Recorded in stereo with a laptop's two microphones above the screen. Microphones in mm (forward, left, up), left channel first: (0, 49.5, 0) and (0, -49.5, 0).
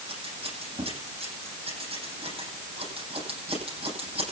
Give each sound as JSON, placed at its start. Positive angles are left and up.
{"t": 0.1, "sound": "scissors", "side_deg": -65, "distance_m": 10.0}